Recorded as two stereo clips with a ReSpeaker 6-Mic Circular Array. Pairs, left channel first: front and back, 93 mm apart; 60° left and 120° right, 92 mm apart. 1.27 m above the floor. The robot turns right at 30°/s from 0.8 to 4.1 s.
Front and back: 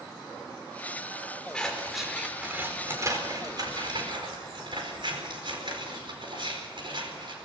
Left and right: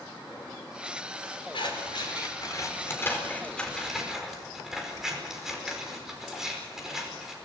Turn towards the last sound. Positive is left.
turn(degrees=155)